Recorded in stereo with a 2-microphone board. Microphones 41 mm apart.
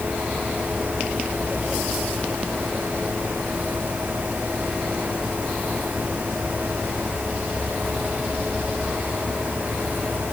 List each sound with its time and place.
Only background noise.